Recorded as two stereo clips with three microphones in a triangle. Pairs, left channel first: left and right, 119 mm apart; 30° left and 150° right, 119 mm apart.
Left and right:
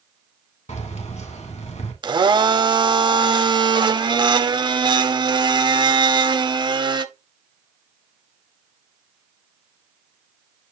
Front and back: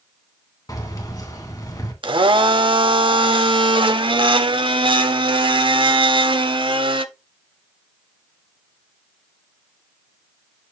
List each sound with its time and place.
0.7 s keys jangling: 85° left, 1.8 m
2.0 s a blender: 125° right, 0.7 m